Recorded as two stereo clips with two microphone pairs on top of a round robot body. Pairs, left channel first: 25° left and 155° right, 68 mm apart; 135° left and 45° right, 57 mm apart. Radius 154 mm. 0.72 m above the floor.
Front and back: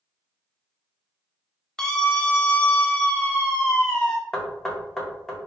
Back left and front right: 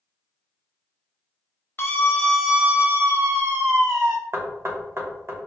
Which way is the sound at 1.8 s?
110° left.